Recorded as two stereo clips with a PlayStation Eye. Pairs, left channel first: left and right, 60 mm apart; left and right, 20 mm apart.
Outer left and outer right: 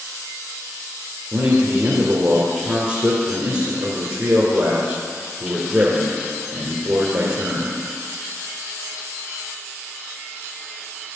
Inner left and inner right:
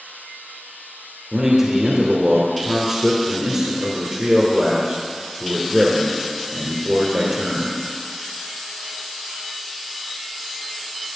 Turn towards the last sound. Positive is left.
turn(degrees=-55)  # may be behind; listen again after turning